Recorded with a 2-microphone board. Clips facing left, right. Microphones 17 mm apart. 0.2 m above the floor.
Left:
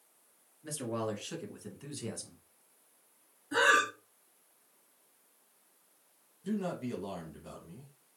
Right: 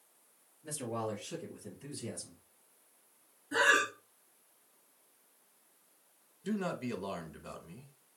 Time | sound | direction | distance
0.6 | a man speaking | 35° left (ahead or behind) | 2 m
3.5 | breathing | 15° left (ahead or behind) | 1.3 m
6.4 | a man speaking | 30° right (ahead or behind) | 1.1 m